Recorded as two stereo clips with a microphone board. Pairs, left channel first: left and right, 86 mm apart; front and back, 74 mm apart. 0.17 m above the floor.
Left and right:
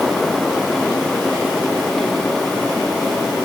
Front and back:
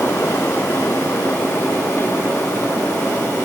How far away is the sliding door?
I don't hear a sliding door.